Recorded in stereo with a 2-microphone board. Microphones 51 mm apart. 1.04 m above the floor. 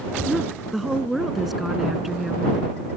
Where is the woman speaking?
Centre (ahead or behind).